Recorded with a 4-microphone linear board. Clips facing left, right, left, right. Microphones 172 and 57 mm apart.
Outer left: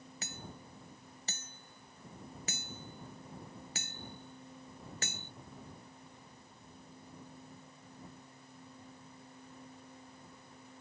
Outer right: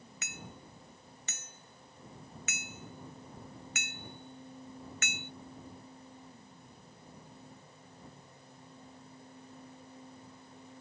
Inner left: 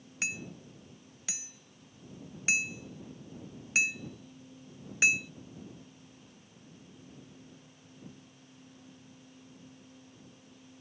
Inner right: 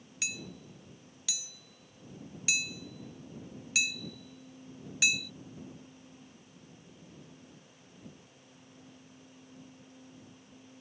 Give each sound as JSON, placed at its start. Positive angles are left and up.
{"t": 0.2, "sound": "hammering", "side_deg": 35}